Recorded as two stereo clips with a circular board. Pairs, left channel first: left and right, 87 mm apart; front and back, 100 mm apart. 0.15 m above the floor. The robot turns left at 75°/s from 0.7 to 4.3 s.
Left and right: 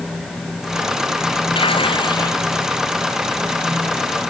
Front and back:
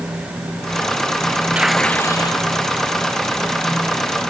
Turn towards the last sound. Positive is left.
turn(degrees=-105)